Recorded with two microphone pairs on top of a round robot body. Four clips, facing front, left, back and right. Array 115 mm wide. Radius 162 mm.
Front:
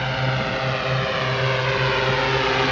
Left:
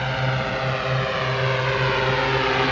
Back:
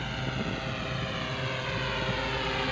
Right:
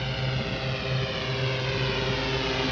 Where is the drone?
40° left; by 2.7 s 45° left.